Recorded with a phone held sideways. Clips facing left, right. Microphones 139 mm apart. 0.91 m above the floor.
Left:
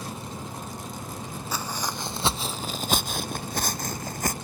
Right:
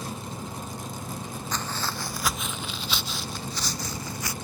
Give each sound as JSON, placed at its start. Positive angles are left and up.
{"t": 1.5, "sound": "footsteps", "side_deg": 5}